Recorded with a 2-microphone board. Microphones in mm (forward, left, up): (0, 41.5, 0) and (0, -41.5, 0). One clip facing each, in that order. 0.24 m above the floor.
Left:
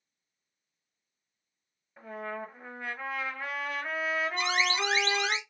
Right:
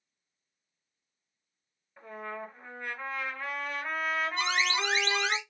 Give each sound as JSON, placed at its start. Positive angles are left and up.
{"t": 2.0, "sound": "a trumpet", "side_deg": 10, "distance_m": 1.2}
{"t": 4.4, "sound": "an alarm", "side_deg": -30, "distance_m": 1.4}